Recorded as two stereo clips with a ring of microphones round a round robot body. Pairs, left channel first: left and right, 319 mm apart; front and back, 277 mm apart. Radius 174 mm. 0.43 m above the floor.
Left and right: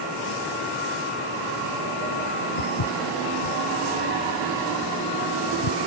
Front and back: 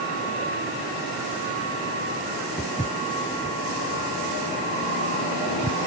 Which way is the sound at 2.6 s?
80° left.